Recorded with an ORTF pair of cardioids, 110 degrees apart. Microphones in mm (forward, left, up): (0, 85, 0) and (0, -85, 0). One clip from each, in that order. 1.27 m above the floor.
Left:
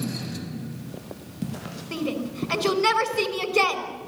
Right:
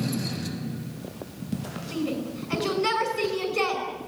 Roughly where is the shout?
Ahead left.